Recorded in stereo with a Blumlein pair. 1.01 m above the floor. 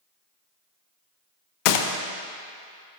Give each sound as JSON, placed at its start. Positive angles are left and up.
{"t": 1.6, "sound": "a gunshot", "azimuth_deg": 45, "distance_m": 0.7}